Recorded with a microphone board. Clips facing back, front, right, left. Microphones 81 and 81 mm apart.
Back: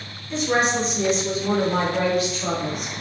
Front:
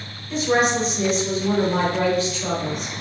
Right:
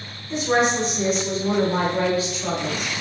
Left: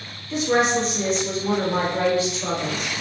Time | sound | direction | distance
0.3 | a woman speaking | 75° right | 1.1 m